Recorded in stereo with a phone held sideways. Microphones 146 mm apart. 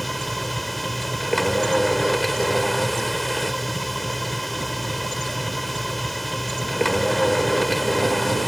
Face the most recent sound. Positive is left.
turn(degrees=0)  # may be behind; listen again after turning